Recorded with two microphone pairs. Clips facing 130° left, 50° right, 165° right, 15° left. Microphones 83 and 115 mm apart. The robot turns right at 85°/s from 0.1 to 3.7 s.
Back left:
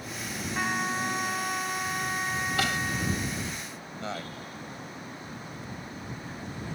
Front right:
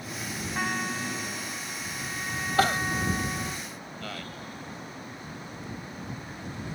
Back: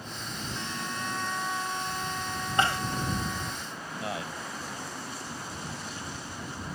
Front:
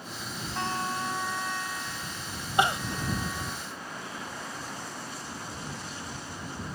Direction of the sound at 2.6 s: 50° right.